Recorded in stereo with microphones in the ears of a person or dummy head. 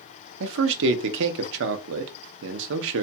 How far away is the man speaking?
About 0.6 m.